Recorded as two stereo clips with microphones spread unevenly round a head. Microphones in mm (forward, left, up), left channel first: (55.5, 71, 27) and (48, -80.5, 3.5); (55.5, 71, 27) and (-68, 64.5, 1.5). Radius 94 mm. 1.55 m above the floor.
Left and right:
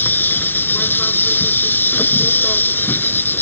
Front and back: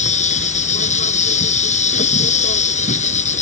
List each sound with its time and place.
0.0 s an insect: 15° left